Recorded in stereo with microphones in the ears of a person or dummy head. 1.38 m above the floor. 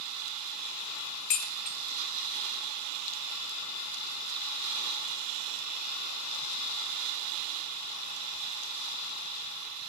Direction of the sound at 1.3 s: 40° left (ahead or behind).